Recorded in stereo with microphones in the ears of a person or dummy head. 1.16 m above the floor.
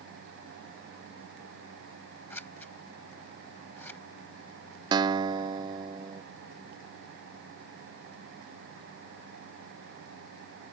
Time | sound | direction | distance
2.3 | scissors | centre (ahead or behind) | ?
4.9 | a guitar | 20° right (ahead or behind) | ?